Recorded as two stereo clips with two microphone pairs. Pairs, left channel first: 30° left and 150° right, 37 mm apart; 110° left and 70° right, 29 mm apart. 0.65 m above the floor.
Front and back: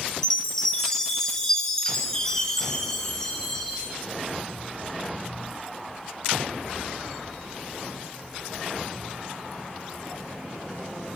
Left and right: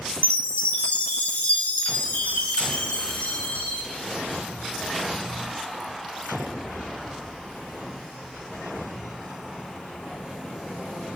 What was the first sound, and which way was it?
A chime, 105° left.